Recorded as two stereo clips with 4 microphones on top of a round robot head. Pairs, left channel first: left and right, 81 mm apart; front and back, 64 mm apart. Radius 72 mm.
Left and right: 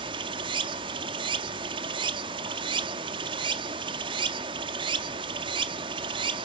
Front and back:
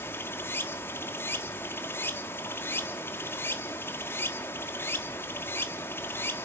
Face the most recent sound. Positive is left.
turn(degrees=-60)